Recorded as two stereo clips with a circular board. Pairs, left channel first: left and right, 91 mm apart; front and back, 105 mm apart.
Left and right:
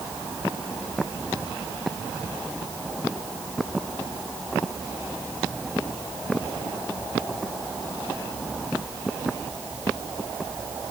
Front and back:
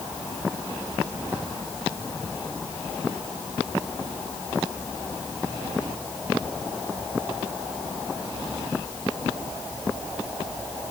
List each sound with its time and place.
Only background noise.